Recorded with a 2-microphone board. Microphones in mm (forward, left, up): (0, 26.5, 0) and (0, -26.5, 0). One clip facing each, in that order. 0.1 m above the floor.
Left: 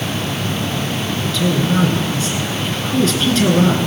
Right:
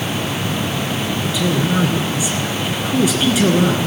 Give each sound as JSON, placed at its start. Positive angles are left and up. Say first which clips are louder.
{"t": 1.2, "sound": "a man speaking", "louder": "left 2 dB", "side_deg": -10, "distance_m": 1.6}